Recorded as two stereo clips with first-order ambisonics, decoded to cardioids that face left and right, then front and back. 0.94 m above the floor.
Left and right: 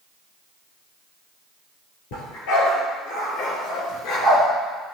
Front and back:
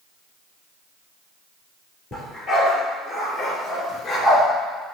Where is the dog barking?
85° left, 5 m; by 4.4 s 75° left, 4 m.